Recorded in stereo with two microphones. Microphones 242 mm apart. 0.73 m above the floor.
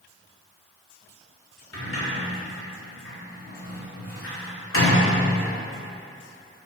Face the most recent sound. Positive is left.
turn(degrees=65)  # may be behind; listen again after turning